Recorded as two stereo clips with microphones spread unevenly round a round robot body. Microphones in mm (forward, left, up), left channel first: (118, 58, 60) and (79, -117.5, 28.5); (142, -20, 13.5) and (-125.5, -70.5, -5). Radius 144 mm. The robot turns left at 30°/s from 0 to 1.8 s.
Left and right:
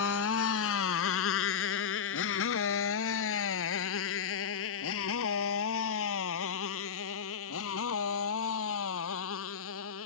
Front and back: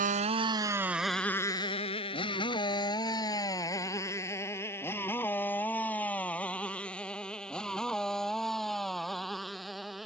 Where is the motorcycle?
125° left; by 10.1 s 100° left.